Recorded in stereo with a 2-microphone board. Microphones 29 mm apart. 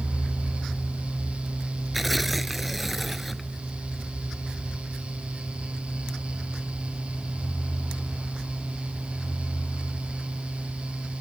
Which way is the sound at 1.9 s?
5° right (ahead or behind).